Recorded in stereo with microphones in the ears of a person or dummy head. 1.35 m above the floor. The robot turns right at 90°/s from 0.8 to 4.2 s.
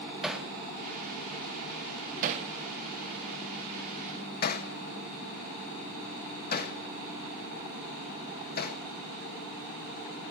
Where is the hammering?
10° right (ahead or behind), 1.1 m; by 8.8 s 45° left (ahead or behind), 1.1 m.